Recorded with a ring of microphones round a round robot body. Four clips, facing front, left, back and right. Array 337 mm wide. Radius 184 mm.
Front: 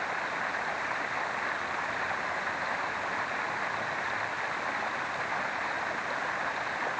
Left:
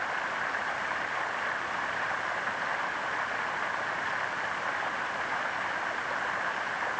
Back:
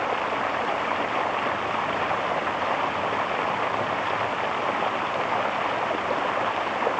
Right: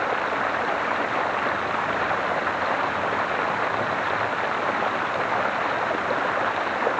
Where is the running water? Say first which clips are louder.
Right 9 dB, back 8 dB; 130° right.